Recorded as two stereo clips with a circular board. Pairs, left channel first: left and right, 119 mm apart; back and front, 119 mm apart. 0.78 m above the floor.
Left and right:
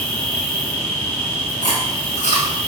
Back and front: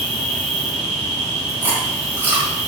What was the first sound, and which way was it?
An insect, 155° left.